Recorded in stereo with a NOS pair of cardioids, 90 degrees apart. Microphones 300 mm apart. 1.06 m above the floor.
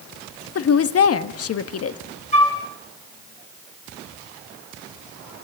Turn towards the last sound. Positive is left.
turn(degrees=25)